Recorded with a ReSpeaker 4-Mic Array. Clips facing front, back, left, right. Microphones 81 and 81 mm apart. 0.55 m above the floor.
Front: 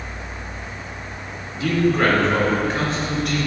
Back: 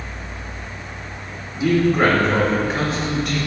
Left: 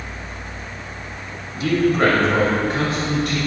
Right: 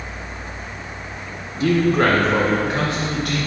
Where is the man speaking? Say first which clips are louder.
Back 2 dB, even; 115° right, 1.2 m; by 3.4 s 90° right, 3 m.